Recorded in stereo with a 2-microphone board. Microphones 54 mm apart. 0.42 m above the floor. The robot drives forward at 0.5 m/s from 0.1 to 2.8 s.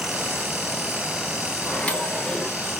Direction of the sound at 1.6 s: 25° left (ahead or behind).